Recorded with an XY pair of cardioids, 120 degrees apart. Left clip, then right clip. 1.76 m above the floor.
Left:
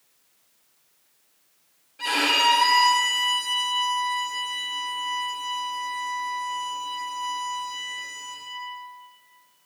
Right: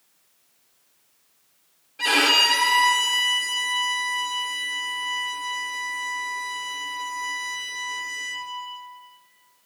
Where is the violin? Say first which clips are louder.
Right 3 dB; 30° right, 1.4 m.